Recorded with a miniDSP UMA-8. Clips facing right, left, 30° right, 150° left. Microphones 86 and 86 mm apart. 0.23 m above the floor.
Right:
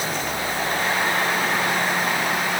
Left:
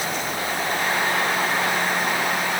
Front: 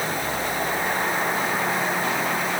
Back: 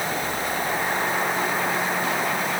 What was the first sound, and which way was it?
Only background noise.